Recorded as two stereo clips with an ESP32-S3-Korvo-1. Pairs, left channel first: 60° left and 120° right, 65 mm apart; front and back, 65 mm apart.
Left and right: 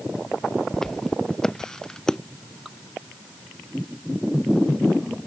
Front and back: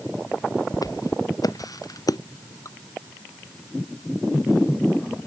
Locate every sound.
0.7 s footsteps: 20° right
2.6 s dripping: 35° right